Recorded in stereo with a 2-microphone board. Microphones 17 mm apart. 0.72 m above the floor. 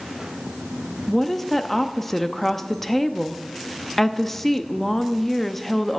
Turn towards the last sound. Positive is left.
turn(degrees=10)  # may be behind; listen again after turning